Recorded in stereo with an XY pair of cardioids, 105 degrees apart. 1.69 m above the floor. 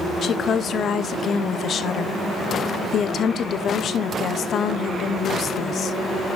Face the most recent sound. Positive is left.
turn(degrees=55)